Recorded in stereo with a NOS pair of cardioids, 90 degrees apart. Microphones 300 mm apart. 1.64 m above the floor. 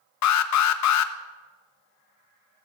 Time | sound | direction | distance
0.2 | an alarm | 65° left | 1.2 m